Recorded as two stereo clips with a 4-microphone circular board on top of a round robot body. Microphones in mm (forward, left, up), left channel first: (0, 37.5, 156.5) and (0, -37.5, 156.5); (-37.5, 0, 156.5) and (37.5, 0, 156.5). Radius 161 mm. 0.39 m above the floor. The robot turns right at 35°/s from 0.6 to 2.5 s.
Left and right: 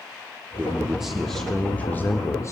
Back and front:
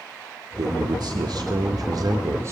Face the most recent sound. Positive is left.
turn(degrees=45)